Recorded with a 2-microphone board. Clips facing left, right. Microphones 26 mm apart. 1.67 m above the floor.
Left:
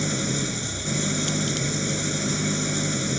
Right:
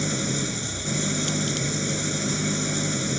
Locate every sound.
0.0 s an engine running: centre (ahead or behind)